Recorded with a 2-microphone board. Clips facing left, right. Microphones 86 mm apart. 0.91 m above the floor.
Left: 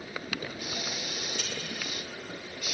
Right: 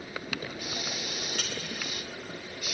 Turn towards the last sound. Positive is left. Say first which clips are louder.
# right 1 dB
turn(degrees=-75)  # may be behind; listen again after turning